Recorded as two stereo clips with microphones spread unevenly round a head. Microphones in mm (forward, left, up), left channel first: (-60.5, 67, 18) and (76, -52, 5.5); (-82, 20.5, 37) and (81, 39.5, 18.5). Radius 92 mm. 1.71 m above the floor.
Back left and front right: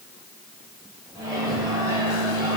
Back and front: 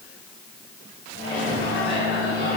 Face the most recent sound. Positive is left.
turn(degrees=-115)